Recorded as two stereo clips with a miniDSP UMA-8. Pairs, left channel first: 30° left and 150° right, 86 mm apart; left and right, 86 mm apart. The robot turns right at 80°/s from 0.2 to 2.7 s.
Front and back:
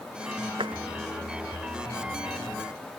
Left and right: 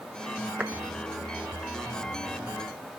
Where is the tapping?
165° right; by 0.8 s 150° right.